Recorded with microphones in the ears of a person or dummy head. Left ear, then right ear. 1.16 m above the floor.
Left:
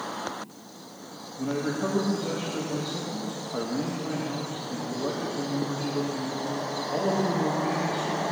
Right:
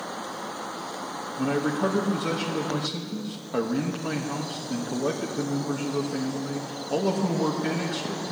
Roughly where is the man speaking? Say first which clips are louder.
Right 3 dB; right.